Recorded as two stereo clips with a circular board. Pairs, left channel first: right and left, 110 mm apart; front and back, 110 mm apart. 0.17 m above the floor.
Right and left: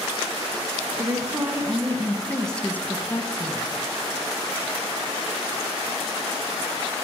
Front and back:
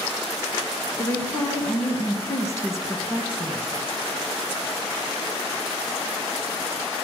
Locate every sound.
1.0 s a woman speaking: 50° left, 1.5 m; by 3.7 s 70° right, 1.4 m